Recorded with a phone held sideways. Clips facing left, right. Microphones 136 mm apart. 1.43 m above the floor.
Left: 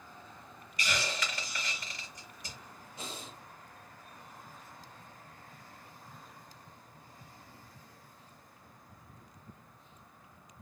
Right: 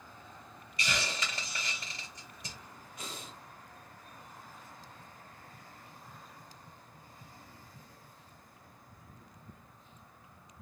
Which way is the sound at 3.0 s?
30° left (ahead or behind).